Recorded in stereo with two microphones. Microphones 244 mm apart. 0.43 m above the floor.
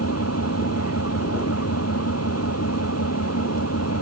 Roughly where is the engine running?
Left.